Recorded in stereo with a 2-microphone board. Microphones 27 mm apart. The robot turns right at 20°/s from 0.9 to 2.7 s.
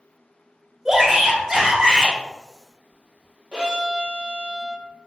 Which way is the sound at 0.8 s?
20° right (ahead or behind).